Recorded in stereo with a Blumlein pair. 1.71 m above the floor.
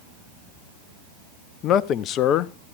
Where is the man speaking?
35° left, 0.6 m.